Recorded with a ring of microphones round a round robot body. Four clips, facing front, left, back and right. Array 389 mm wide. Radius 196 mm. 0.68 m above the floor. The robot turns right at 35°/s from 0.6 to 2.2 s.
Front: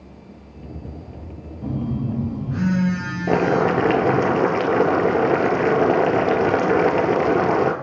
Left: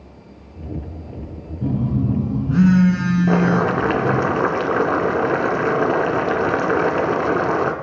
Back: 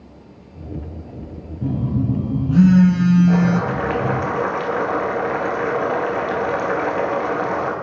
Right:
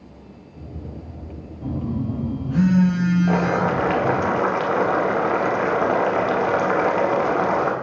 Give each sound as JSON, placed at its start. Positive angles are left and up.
{"t": 1.6, "sound": "a phone buzzing", "azimuth_deg": 135, "distance_m": 4.5}
{"t": 3.3, "sound": "boiling", "azimuth_deg": 30, "distance_m": 1.5}